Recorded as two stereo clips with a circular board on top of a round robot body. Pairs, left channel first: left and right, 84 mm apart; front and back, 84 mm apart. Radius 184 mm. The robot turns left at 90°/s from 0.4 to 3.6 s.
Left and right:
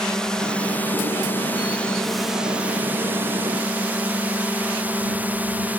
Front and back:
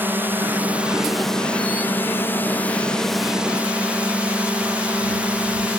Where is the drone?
160° left; by 5.8 s 125° right.